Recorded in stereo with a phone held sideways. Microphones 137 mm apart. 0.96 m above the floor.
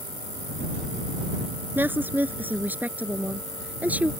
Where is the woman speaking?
15° right (ahead or behind); by 4.1 s 10° right (ahead or behind).